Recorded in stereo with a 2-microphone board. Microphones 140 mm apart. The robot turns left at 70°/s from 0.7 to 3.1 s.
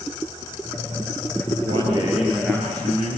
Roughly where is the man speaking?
Behind right.